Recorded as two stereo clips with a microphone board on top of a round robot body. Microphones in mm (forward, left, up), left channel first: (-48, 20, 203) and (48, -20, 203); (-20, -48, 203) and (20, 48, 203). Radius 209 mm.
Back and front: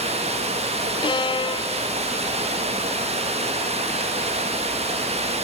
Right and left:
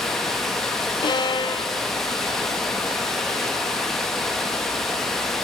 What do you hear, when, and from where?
0.0 s running water: 25° right, 2.5 m
1.0 s a violin: 160° right, 0.9 m